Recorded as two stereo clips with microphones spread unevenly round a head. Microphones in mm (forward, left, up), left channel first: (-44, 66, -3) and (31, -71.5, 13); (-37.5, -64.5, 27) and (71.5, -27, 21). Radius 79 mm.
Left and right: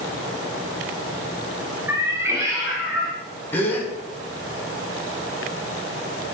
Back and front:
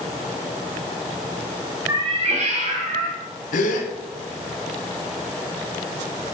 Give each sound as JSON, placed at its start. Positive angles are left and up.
{"t": 1.9, "sound": "a cat meowing", "azimuth_deg": -20, "distance_m": 0.7}
{"t": 3.5, "sound": "a gasp", "azimuth_deg": -160, "distance_m": 1.1}